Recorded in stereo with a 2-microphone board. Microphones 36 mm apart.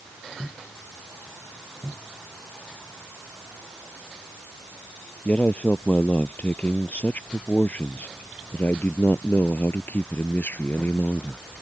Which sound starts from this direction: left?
A man speaking, at 5.2 s.